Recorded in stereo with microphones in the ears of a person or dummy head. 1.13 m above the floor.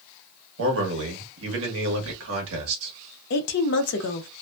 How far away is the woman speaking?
About 0.6 m.